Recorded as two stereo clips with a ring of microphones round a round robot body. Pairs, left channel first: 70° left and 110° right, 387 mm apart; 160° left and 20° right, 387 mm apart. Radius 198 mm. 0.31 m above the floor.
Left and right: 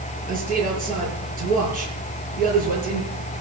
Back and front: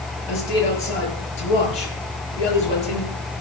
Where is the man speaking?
Straight behind, 6 m.